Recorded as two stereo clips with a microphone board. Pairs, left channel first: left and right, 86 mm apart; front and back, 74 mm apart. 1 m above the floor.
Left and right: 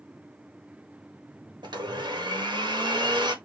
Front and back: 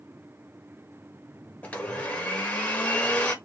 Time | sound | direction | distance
1.6 | a blender | 70° right | 1.4 m